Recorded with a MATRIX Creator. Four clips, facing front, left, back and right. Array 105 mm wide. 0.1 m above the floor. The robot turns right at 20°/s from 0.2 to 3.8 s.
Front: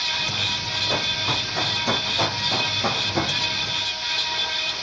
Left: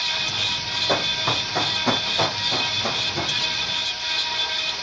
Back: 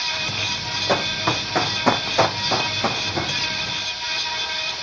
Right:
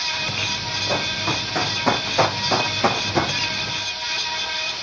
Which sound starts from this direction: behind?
Running footsteps, at 0.9 s.